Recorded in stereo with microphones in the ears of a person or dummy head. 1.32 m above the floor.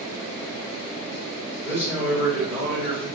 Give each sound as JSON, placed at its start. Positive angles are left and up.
{"t": 1.6, "sound": "a man speaking", "side_deg": 5, "distance_m": 1.9}